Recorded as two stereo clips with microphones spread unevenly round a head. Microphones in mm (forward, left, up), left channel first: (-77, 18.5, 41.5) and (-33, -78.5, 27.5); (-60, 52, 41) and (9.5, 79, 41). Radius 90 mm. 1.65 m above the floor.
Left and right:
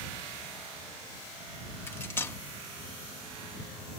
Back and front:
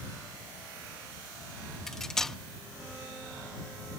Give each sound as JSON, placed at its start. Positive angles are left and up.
{"t": 1.9, "sound": "cutlery clinking", "azimuth_deg": 125}